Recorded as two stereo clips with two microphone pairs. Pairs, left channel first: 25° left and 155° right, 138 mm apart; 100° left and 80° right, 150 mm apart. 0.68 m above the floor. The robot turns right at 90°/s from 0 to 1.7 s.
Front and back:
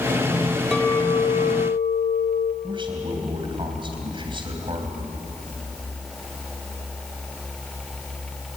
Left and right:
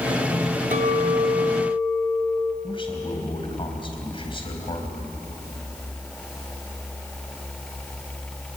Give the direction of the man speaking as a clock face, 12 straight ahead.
7 o'clock.